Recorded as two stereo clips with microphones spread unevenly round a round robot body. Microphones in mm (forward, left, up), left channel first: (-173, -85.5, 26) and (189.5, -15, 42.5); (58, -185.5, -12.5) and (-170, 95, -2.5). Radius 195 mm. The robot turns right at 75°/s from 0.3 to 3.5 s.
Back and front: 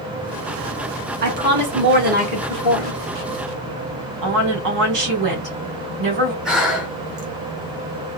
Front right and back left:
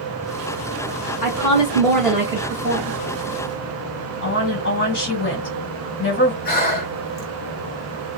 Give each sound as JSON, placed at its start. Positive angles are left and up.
{"t": 1.2, "sound": "a woman speaking", "azimuth_deg": -25, "distance_m": 1.4}
{"t": 4.2, "sound": "a woman speaking", "azimuth_deg": -5, "distance_m": 1.9}
{"t": 6.5, "sound": "breathing", "azimuth_deg": -80, "distance_m": 1.0}